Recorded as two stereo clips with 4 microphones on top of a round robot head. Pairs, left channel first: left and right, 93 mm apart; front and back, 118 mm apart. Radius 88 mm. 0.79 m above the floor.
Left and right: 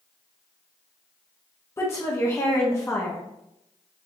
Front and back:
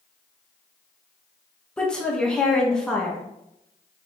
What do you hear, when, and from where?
1.8 s a woman speaking: 75° left, 1.0 m